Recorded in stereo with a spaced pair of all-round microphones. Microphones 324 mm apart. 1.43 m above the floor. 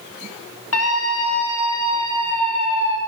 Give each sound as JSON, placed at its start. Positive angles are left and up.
{"t": 0.7, "sound": "a scream", "side_deg": 45, "distance_m": 3.5}